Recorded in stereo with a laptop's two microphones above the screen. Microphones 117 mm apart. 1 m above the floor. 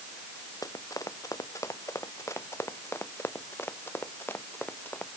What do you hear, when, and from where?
0.6 s running footsteps: 30° left (ahead or behind); by 5.1 s 15° left (ahead or behind)